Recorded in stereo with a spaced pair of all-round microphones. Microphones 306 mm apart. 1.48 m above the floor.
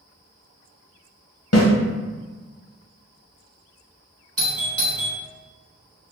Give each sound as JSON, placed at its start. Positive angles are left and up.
{"t": 1.5, "sound": "a snare drum", "side_deg": 60, "distance_m": 0.9}
{"t": 4.4, "sound": "a doorbell", "side_deg": -50, "distance_m": 1.2}